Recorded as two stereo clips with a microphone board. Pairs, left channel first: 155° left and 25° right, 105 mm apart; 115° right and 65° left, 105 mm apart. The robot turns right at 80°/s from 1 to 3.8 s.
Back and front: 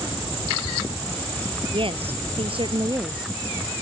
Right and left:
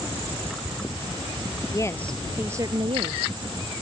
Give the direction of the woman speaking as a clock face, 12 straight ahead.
2 o'clock.